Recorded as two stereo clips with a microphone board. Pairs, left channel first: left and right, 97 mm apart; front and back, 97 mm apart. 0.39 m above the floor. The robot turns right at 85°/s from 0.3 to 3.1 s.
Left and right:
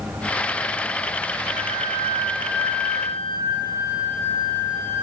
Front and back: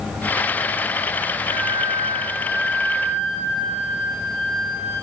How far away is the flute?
About 2.5 m.